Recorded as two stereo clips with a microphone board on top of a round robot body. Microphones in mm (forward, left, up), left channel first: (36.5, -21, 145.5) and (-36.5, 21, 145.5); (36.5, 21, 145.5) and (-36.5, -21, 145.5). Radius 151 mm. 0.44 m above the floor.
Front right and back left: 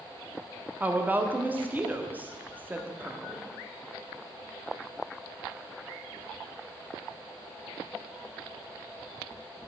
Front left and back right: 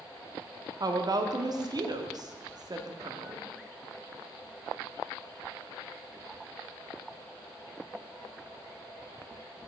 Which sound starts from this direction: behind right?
A woman speaking, at 0.8 s.